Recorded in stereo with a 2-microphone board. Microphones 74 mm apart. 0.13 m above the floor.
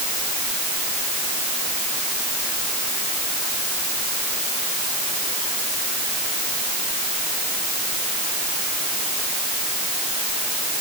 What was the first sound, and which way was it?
Only background noise.